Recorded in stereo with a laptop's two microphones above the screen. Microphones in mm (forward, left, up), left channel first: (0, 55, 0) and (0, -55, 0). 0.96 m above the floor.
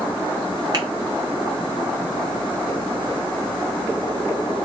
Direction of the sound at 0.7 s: 40° right (ahead or behind).